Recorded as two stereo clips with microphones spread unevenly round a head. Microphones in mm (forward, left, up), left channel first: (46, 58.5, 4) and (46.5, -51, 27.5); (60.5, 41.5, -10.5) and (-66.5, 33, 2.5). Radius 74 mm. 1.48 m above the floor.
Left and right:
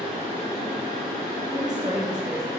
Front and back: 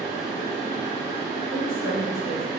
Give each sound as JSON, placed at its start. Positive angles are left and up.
{"t": 0.0, "sound": "a fan", "azimuth_deg": -140, "distance_m": 1.5}
{"t": 1.5, "sound": "a woman speaking", "azimuth_deg": -30, "distance_m": 1.2}